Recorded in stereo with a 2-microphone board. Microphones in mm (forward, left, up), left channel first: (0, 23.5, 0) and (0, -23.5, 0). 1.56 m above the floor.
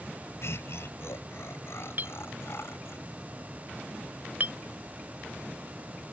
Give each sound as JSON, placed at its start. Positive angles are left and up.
{"t": 0.4, "sound": "laughter", "side_deg": 65}
{"t": 2.0, "sound": "a clink", "side_deg": -45}